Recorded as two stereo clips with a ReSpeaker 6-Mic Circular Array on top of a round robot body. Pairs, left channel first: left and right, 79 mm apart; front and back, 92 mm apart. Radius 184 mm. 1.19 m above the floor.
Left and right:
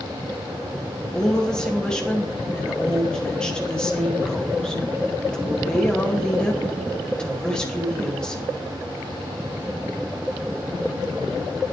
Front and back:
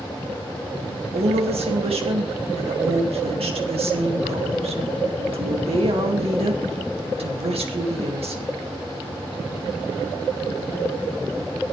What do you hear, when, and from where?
1.1 s a woman speaking: 170° left, 2.5 m